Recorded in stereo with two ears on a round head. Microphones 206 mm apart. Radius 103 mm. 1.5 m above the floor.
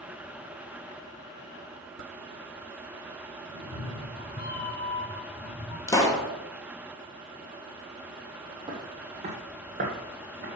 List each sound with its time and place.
3.5 s a cat meowing: 45° left (ahead or behind), 2.0 m; by 5.8 s 20° left (ahead or behind), 3.5 m
5.9 s a pop: 15° left (ahead or behind), 1.3 m
8.7 s footsteps: 20° right (ahead or behind), 1.9 m; by 10.5 s 45° right (ahead or behind), 2.5 m